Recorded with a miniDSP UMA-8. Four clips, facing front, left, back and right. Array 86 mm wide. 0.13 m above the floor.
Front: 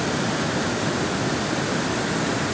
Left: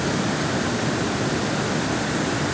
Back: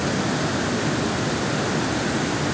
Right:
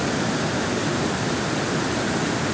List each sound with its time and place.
Only background noise.